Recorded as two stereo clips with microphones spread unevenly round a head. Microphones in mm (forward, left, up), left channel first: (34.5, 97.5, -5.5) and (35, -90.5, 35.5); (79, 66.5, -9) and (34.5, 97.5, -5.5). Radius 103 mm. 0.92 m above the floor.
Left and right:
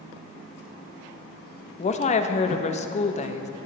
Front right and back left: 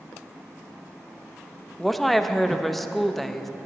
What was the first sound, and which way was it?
A woman speaking, 50° left.